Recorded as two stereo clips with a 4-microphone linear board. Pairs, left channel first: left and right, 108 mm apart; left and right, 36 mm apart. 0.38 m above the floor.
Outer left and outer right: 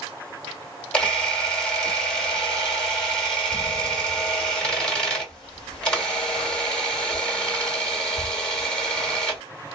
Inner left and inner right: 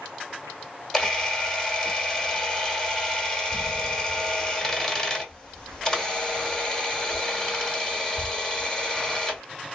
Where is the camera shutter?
10° left (ahead or behind), 1.5 m.